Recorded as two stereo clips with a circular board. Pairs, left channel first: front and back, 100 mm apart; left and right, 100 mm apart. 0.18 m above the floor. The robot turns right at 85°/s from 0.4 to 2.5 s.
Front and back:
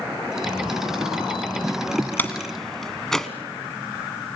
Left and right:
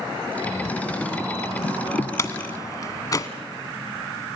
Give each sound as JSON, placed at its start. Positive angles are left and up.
{"t": 2.2, "sound": "a door slam", "azimuth_deg": 60, "distance_m": 1.2}